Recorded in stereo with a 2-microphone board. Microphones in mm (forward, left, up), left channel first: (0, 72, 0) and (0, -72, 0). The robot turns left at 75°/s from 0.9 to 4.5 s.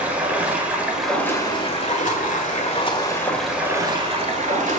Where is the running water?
170° right, 1.9 m; by 4.8 s 80° right, 1.9 m.